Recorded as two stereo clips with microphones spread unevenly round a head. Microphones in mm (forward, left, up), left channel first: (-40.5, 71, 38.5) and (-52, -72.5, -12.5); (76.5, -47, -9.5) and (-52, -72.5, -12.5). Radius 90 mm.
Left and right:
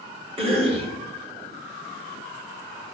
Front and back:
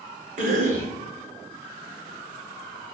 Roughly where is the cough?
Behind right.